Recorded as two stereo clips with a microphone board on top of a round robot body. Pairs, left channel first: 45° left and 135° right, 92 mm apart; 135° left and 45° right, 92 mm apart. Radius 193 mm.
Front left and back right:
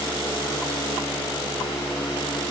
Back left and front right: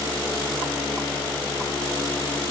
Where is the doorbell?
I don't hear a doorbell.